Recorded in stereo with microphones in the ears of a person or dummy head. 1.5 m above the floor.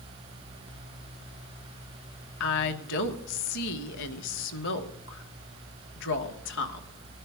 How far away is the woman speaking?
About 1.0 m.